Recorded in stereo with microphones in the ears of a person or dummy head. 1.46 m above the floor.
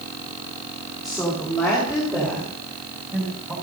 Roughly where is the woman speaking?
Centre.